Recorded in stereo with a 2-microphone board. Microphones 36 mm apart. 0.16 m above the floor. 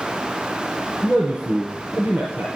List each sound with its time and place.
1.0 s a man speaking: 65° right (ahead or behind), 2.5 m